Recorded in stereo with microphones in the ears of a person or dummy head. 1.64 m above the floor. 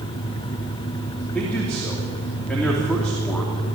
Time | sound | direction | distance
1.3 | a man speaking | 5° left (ahead or behind) | 3 m